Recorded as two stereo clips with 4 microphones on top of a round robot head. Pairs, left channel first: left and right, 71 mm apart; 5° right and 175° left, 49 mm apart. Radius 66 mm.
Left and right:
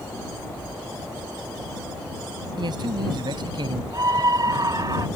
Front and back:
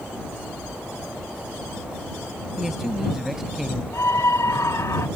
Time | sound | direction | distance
2.6 | a man speaking | 100° right | ?
3.9 | a scream | 45° right | ?